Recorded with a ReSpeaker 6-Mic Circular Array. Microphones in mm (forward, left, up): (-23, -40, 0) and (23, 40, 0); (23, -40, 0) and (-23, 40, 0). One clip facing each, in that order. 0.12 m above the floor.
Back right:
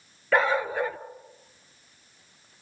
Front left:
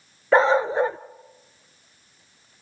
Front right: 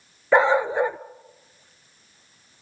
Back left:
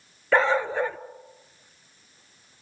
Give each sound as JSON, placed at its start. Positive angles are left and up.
{"t": 0.3, "sound": "a dog barking", "azimuth_deg": 5, "distance_m": 0.6}